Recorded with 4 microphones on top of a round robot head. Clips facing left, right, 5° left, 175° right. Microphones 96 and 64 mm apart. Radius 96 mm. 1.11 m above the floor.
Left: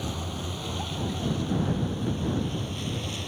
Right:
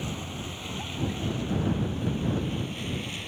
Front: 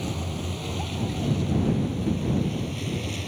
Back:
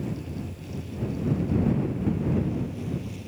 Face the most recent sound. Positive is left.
turn(degrees=20)